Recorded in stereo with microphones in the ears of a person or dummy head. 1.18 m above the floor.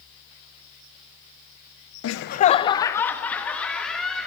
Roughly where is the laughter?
Left.